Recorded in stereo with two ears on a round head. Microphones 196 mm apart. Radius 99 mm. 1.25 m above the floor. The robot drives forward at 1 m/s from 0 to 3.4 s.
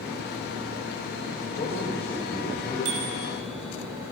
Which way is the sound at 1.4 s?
35° left (ahead or behind).